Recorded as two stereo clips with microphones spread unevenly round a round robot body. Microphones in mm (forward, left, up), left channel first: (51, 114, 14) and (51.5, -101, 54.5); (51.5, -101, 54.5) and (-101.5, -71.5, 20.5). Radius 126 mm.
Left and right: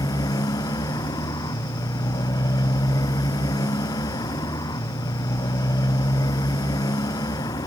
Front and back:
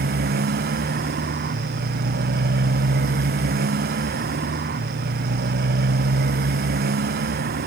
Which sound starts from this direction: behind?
A motorcycle, at 0.0 s.